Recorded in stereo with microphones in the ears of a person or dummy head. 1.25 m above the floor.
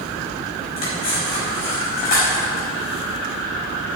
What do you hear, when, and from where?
0.8 s cutlery clinking: 45° left (ahead or behind), 5.5 m